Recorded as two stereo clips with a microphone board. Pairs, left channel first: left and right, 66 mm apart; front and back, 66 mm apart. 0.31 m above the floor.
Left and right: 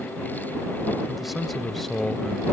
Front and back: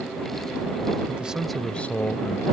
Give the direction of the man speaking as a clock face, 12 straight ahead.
6 o'clock.